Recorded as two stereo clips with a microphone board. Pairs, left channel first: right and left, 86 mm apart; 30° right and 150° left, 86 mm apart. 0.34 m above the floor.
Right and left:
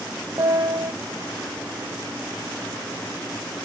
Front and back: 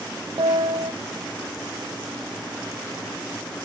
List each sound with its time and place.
0.4 s a piano: 135° left, 0.8 m